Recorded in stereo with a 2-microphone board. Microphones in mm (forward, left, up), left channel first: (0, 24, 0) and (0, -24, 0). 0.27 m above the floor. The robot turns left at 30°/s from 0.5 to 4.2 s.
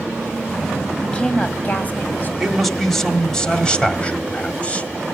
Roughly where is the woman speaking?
Behind left.